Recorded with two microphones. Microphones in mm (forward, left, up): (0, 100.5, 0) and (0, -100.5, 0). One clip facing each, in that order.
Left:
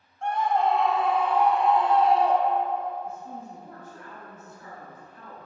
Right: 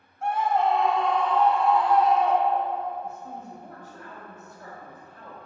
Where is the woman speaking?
40° right (ahead or behind), 2.5 m.